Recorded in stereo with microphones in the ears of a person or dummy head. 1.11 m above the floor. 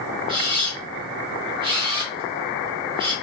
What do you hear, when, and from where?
0.3 s a camera shutter: 25° right (ahead or behind), 0.8 m